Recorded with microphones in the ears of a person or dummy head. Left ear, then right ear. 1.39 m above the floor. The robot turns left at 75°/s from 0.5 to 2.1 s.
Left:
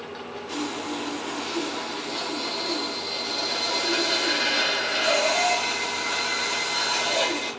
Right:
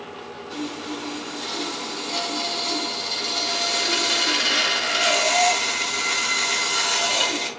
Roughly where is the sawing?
Ahead left.